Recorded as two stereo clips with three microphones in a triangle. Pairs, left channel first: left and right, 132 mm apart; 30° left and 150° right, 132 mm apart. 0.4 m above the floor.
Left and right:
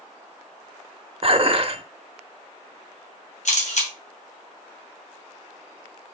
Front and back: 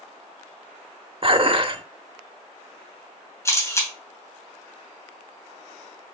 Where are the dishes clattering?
115° right, 0.7 m.